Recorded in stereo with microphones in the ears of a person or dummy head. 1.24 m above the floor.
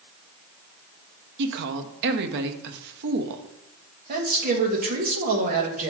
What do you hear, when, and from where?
1.4 s a woman speaking: 60° right (ahead or behind), 0.7 m
4.1 s a man speaking: 45° right (ahead or behind), 1.2 m